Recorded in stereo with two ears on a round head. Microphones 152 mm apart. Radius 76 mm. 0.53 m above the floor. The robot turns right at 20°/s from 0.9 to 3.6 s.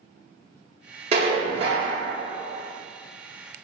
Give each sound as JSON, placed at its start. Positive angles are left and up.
{"t": 1.1, "sound": "dishes clattering", "side_deg": -35, "distance_m": 0.7}